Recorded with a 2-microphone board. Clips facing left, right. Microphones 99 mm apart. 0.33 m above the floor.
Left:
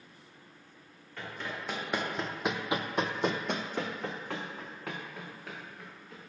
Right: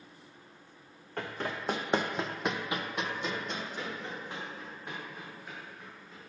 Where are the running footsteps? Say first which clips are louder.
Right 4 dB; 45° right (ahead or behind), 1.0 m; by 6.3 s 80° left, 2 m.